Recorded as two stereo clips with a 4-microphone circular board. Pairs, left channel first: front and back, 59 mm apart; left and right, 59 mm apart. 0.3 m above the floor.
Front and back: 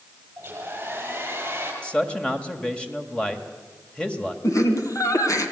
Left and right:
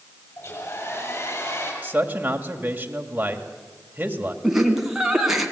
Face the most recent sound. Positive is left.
turn(degrees=-5)